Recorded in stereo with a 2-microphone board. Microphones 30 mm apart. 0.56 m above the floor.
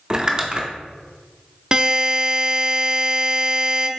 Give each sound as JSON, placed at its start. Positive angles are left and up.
{"t": 0.1, "sound": "crumpling", "side_deg": -25, "distance_m": 0.6}
{"t": 1.7, "sound": "a buzzer", "side_deg": -25, "distance_m": 0.5}